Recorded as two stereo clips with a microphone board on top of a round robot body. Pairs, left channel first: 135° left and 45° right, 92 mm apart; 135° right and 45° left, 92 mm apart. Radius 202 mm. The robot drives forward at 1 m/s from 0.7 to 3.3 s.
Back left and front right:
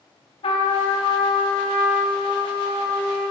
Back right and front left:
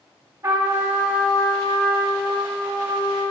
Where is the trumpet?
105° left, 0.5 m; by 3.3 s 170° left, 3 m.